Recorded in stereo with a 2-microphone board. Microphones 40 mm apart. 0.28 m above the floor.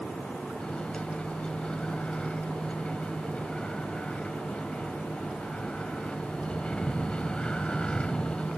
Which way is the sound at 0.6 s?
30° left (ahead or behind).